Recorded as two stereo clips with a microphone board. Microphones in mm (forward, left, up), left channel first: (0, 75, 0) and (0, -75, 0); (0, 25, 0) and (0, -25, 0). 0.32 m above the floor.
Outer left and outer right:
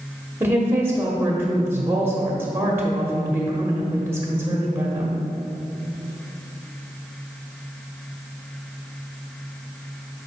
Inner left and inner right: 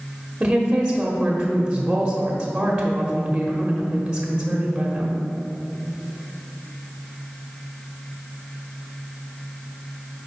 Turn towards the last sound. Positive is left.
turn(degrees=-20)  # may be behind; listen again after turning